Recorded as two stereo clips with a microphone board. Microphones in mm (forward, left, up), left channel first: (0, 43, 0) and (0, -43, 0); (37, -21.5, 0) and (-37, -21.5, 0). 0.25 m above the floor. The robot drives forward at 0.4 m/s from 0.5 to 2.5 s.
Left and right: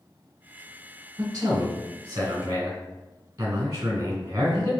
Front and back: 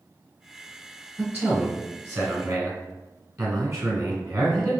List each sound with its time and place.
1.2 s a man speaking: 125° right, 1.9 m; by 4.7 s 140° right, 2 m